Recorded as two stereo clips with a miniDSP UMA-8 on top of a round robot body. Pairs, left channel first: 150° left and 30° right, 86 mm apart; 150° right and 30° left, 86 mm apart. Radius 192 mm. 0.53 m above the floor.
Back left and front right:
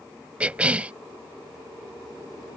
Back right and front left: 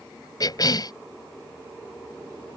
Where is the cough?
105° right.